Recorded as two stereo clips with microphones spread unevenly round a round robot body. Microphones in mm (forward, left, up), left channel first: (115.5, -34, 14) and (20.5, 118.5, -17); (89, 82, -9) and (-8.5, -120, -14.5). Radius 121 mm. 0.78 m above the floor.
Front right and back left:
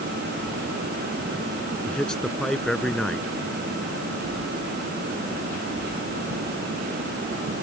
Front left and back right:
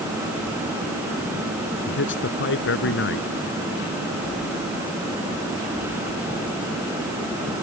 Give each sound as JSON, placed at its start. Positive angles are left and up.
{"t": 1.9, "sound": "a man speaking", "azimuth_deg": 30}